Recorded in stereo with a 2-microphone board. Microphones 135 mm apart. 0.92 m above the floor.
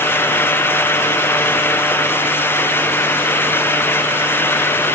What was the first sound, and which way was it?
Only background noise.